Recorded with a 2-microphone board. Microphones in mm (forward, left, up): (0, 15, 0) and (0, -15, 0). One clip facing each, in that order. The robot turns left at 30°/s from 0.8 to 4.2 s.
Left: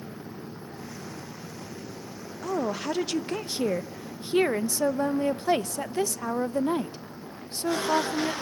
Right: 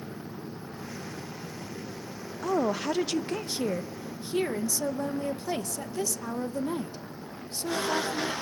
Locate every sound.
2.4 s a woman speaking: 165° right, 0.7 m; by 8.3 s 140° left, 0.7 m